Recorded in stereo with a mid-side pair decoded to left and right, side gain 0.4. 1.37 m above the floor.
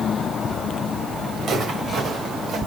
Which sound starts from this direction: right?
Footsteps, at 1.4 s.